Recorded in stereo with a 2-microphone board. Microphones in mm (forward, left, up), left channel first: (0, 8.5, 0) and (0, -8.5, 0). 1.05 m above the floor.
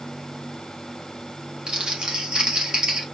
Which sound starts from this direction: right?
Crumpling, at 1.7 s.